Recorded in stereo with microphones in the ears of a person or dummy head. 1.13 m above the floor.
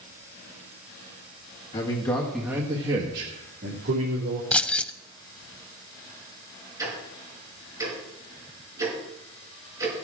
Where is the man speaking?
30° left (ahead or behind), 1.7 m; by 4.4 s 70° right (ahead or behind), 3 m.